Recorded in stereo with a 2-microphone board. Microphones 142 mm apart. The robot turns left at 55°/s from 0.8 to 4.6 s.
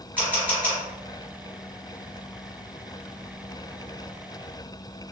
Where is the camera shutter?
15° right (ahead or behind), 1.6 m.